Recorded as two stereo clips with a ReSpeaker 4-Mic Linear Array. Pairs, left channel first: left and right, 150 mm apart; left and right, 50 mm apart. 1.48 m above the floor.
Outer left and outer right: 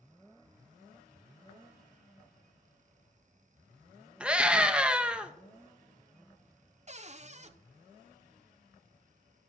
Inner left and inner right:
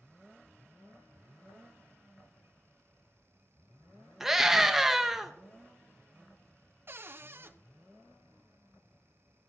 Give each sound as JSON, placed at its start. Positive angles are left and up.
{"t": 4.2, "sound": "a scream", "side_deg": -5, "distance_m": 1.1}
{"t": 6.9, "sound": "a cupboard door", "side_deg": -45, "distance_m": 0.7}